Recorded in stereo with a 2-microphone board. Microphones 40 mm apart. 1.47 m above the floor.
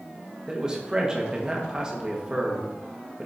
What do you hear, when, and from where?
0.5 s a man speaking: 20° right (ahead or behind), 1.6 m